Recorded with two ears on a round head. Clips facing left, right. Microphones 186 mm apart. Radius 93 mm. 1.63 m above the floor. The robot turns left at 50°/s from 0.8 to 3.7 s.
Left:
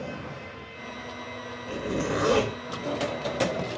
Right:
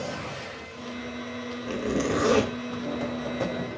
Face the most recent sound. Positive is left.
turn(degrees=135)